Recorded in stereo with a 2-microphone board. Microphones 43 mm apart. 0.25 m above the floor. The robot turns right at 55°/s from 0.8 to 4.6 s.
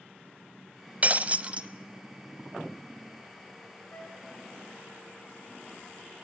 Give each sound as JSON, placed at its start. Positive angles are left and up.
{"t": 1.0, "sound": "breaking glass", "azimuth_deg": -85, "distance_m": 0.8}
{"t": 3.9, "sound": "a flute", "side_deg": 35, "distance_m": 3.5}